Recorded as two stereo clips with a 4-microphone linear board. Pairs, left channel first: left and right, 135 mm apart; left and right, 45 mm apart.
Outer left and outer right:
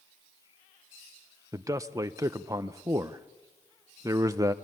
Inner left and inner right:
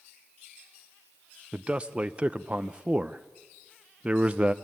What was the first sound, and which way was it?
A man speaking, 25° right (ahead or behind).